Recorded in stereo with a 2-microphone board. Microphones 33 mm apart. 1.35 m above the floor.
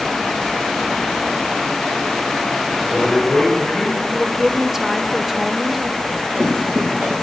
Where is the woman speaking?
10° right (ahead or behind), 0.7 m.